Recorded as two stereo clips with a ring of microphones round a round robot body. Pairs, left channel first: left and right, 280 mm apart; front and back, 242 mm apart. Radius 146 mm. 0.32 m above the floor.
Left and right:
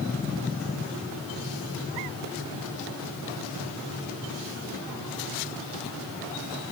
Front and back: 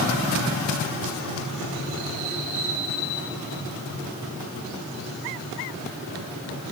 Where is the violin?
I don't hear a violin.